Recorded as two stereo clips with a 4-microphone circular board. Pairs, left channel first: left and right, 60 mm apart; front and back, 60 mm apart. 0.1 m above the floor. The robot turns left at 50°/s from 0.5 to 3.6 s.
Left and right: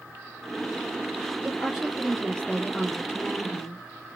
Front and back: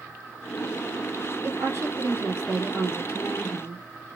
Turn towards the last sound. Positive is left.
turn(degrees=100)